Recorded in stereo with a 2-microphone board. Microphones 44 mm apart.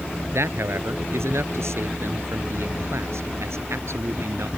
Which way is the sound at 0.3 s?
80° right.